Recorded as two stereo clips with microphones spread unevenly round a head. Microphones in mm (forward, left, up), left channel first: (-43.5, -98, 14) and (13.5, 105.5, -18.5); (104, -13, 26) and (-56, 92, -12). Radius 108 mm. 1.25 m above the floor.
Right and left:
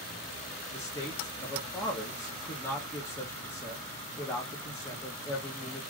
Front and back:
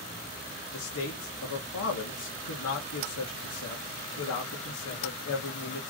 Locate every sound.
0.7 s a man speaking: 25° right, 1.5 m